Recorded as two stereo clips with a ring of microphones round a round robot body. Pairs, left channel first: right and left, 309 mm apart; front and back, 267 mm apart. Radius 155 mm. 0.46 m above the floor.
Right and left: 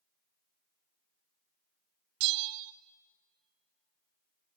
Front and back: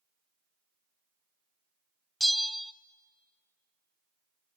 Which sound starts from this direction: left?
A bell, at 2.2 s.